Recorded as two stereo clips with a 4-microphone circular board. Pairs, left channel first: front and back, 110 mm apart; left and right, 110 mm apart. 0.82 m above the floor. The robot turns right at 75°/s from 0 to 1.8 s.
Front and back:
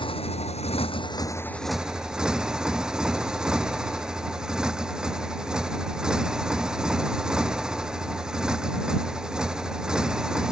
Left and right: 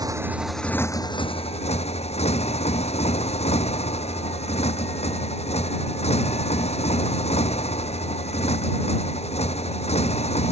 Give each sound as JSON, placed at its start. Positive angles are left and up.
{"t": 0.0, "sound": "a motorcycle", "azimuth_deg": -40}